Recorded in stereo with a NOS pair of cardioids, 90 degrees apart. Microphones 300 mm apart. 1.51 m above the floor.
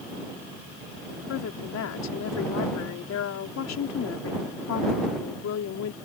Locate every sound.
1.3 s a woman speaking: 60° left